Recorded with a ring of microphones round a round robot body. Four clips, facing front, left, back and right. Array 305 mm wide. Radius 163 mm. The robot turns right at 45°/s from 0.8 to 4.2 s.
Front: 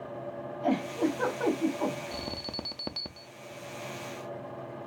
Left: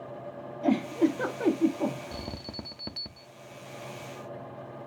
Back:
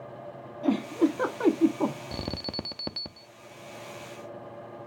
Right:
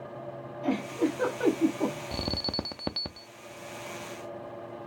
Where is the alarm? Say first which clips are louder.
Right 5 dB, back 3 dB; 135° right, 0.5 m; by 3.3 s 80° right, 0.5 m.